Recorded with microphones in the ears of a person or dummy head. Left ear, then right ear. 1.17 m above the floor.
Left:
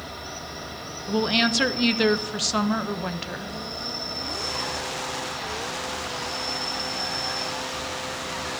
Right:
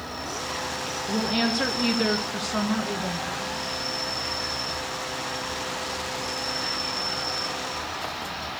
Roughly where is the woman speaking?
Left.